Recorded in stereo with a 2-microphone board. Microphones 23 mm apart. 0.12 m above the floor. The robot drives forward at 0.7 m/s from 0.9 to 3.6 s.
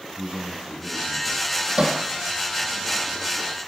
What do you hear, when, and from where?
0.2 s a man speaking: 70° right (ahead or behind), 6 m; by 1.5 s 65° right (ahead or behind), 6 m
1.8 s hammering: 60° right (ahead or behind), 3.5 m